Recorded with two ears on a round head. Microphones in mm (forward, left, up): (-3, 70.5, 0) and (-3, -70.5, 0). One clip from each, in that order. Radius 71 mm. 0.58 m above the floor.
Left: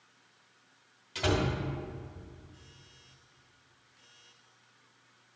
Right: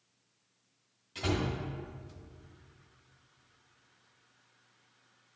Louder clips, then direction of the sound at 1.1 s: Left 4 dB; 35° left (ahead or behind).